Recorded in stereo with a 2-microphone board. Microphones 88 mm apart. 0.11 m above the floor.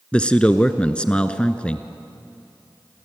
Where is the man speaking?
10° left (ahead or behind), 1.1 m.